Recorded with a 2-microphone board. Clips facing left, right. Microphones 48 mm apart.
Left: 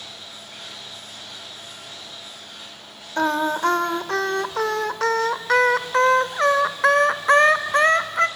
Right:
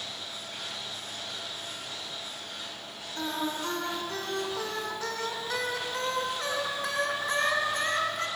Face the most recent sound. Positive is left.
turn(degrees=65)  # may be behind; listen again after turning